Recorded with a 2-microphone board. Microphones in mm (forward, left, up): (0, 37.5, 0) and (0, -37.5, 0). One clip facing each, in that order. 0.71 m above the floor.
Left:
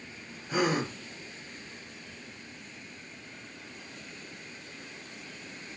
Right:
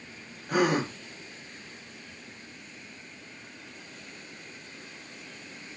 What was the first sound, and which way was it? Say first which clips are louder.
A gasp: right 3 dB; 55° right (ahead or behind).